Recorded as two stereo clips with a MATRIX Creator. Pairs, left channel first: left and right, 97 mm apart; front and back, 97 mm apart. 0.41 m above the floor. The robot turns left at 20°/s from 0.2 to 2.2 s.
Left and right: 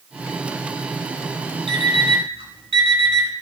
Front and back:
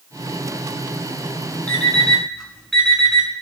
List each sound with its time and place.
1.7 s an alarm clock: 75° right, 1.9 m; by 3.3 s 85° right, 1.9 m